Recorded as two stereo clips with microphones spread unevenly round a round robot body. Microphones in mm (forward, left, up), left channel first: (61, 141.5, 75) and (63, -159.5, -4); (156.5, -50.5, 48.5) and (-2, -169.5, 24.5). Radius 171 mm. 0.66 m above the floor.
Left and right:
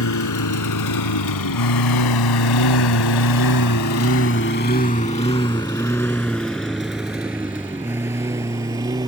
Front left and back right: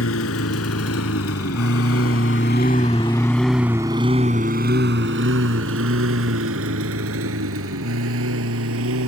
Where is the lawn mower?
60° left; by 9.1 s 170° right.